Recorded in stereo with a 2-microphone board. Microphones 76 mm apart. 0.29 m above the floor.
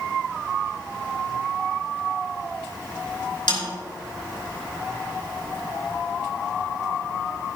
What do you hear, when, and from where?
3.5 s a snare drum: 70° left (ahead or behind), 4 m